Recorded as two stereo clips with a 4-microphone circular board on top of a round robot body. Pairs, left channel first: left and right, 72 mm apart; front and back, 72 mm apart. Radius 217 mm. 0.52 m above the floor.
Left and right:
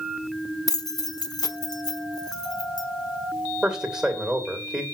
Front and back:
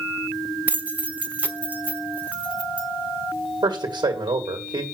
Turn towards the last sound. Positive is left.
turn(degrees=-175)